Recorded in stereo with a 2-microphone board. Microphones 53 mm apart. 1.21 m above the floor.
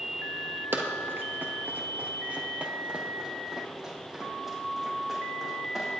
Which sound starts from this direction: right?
Running footsteps, at 0.7 s.